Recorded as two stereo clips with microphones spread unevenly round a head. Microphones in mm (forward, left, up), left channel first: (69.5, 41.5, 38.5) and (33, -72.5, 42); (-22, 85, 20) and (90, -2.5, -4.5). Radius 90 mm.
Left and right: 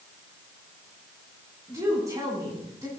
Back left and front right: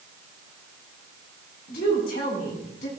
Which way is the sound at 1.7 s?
175° right.